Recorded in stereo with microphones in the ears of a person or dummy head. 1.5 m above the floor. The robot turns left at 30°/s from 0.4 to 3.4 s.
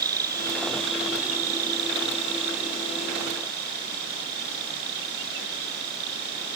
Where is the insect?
30° right; by 6.6 s 120° right.